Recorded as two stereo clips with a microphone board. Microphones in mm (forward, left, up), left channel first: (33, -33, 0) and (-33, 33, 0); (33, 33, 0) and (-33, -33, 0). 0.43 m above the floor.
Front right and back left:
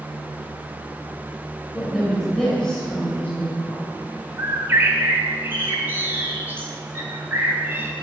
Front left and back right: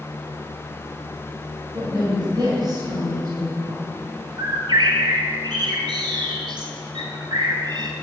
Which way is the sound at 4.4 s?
160° right.